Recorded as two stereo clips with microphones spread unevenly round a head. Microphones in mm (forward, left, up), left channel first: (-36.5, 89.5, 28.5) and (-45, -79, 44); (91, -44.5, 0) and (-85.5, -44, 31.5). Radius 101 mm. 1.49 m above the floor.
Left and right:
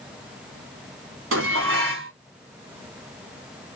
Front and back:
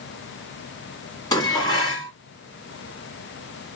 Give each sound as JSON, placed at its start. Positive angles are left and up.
{"t": 1.3, "sound": "dishes clattering", "azimuth_deg": -75, "distance_m": 1.9}